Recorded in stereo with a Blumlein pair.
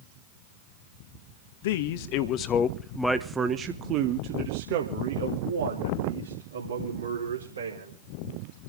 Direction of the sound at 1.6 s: 55° left.